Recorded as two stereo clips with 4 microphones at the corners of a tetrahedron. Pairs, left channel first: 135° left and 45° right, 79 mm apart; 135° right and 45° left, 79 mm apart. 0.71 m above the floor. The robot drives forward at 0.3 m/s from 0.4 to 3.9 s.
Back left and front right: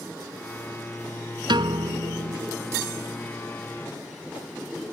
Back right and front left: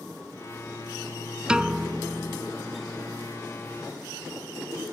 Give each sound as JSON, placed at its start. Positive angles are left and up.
{"t": 1.5, "sound": "a piano", "azimuth_deg": -35}